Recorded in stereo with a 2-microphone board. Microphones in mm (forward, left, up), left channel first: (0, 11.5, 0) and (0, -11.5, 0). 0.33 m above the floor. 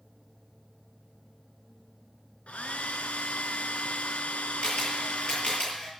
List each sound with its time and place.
2.5 s a hair dryer: 85° left, 1.4 m
4.6 s a camera shutter: 45° left (ahead or behind), 7.5 m